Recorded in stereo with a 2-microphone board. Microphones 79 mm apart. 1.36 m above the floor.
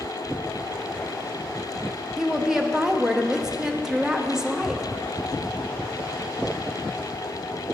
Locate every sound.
2.2 s a woman speaking: 10° right (ahead or behind), 0.6 m